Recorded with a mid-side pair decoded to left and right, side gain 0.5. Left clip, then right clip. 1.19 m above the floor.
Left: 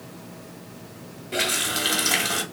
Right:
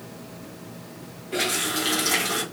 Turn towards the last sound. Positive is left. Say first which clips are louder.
# left 1 dB
turn(degrees=40)